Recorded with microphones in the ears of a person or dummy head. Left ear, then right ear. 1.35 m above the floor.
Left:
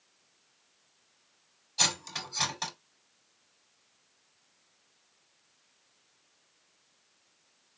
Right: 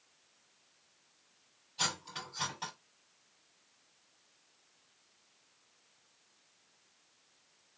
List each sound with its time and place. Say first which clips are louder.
1.8 s cutlery clinking: left 7 dB; 40° left (ahead or behind), 3 m